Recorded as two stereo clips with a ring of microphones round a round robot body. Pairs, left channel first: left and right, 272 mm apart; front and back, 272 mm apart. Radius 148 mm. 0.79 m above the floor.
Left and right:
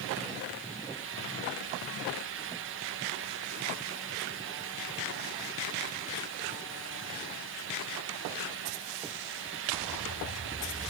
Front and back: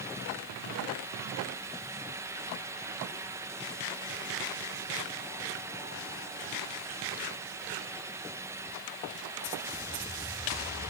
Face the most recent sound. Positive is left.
No sound to turn to.